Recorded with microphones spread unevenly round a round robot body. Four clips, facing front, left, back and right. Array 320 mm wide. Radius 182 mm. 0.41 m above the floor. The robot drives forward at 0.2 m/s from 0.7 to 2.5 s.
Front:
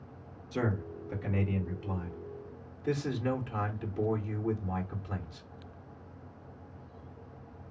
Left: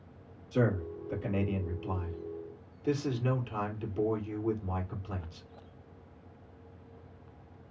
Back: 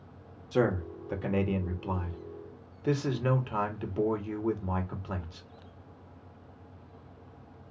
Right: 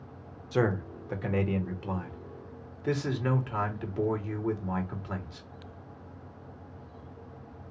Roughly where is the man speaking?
Behind right.